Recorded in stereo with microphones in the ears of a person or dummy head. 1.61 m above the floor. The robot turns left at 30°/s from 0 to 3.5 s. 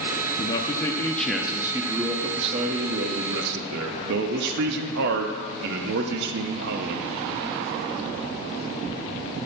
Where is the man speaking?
30° left, 0.6 m; by 7.1 s 65° right, 0.6 m.